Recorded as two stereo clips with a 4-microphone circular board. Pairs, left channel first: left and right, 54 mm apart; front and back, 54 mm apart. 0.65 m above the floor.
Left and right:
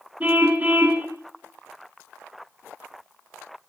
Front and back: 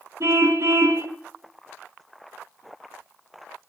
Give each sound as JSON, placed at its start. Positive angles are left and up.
{"t": 0.2, "sound": "a car horn", "azimuth_deg": -150, "distance_m": 3.5}